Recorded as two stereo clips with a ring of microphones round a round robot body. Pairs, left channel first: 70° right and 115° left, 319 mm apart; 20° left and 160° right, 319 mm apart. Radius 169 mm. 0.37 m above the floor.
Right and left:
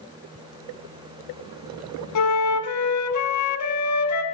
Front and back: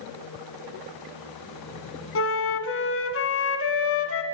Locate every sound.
2.1 s a flute: 30° right, 1.7 m